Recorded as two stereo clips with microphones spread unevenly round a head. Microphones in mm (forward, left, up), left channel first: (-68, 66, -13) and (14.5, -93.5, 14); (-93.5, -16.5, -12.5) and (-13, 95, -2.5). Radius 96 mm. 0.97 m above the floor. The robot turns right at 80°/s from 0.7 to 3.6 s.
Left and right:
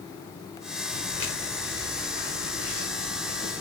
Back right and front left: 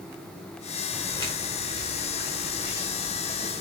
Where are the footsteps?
150° left, 6 m; by 3.6 s 20° left, 5.5 m.